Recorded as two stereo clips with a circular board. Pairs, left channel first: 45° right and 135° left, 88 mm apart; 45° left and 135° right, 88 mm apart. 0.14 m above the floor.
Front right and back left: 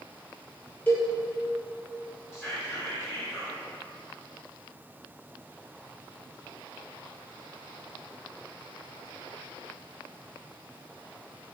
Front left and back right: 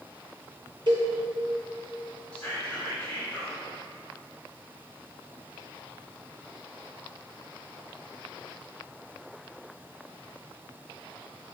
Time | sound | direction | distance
0.9 | a cowbell | 115° right | 0.9 m
2.3 | whispering | 20° right | 1.5 m